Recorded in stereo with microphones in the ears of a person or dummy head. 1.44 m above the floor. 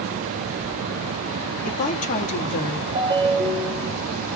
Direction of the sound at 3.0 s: 15° right (ahead or behind).